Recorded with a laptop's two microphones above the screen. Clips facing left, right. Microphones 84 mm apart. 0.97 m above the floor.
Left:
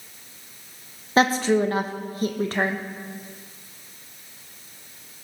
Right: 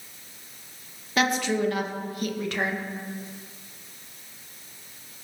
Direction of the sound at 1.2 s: 35° left (ahead or behind).